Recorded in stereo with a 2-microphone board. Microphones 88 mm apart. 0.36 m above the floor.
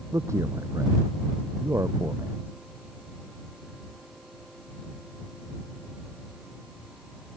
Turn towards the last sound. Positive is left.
turn(degrees=-35)  # may be behind; listen again after turning